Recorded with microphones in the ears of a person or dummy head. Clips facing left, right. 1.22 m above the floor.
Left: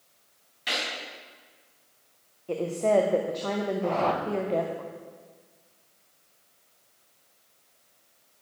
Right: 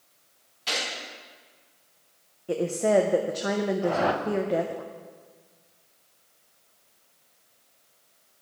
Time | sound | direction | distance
0.7 | a gunshot | 20° left (ahead or behind) | 4.5 m
2.5 | a woman speaking | 15° right (ahead or behind) | 0.6 m
3.8 | a whoosh | 15° right (ahead or behind) | 0.6 m